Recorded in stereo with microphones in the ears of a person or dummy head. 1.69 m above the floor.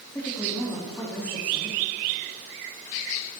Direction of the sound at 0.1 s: 10° left (ahead or behind).